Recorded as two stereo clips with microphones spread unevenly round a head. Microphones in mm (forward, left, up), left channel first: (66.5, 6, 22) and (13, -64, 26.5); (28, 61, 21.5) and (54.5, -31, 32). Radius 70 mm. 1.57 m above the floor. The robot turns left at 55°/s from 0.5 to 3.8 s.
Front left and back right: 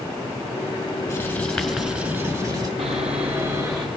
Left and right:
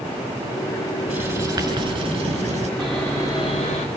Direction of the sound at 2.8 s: 160° right.